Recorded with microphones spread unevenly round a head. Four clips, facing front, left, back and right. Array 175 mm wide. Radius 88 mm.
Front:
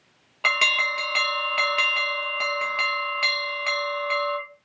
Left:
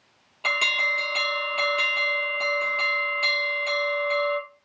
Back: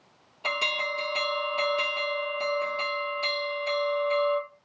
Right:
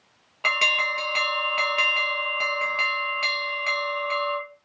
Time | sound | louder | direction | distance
0.4 | an alarm | right 1 dB, front 5 dB | 20° right | 1.1 m